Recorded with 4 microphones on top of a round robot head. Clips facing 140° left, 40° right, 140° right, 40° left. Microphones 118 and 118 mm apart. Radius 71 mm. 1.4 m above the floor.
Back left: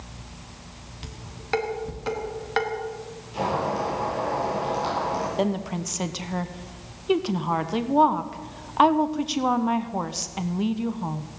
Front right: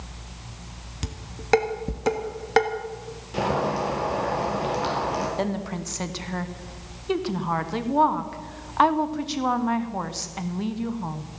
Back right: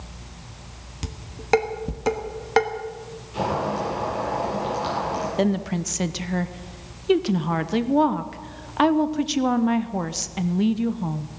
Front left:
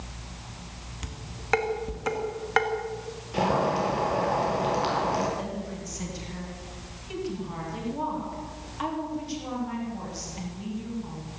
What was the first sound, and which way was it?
Dishes clattering, 85° right.